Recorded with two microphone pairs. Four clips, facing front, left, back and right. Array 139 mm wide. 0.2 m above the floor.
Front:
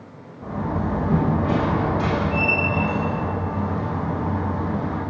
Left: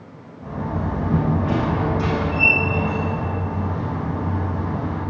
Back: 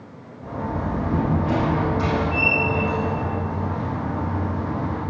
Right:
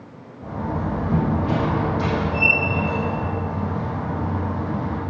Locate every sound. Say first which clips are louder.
0.4 s a door slam: even, front 1 dB; 5° right, 5 m